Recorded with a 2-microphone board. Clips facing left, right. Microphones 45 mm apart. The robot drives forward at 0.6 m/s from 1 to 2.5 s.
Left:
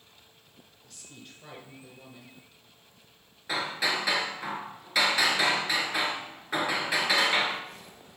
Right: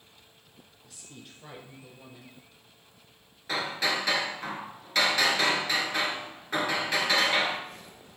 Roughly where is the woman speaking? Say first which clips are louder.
Even; centre.